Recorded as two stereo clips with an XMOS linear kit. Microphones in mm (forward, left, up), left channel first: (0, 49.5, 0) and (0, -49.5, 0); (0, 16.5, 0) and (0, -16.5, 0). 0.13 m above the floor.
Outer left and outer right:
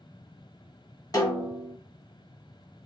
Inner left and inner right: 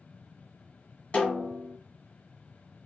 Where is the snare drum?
35° left (ahead or behind), 2 m.